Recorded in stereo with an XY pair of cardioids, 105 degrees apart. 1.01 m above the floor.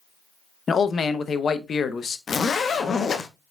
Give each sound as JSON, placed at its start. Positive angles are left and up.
{"t": 0.7, "sound": "a man speaking", "azimuth_deg": 45, "distance_m": 0.7}
{"t": 2.3, "sound": "a zipper", "azimuth_deg": 40, "distance_m": 0.8}